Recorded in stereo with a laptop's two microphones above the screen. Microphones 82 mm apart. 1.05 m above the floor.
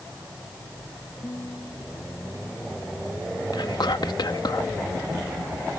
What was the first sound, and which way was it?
A guitar, 45° left (ahead or behind).